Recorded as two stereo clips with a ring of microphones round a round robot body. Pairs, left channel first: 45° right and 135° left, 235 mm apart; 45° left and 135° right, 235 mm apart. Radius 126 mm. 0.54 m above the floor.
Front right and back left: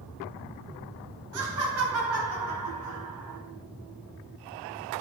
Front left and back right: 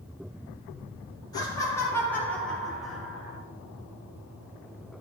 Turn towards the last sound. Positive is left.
turn(degrees=145)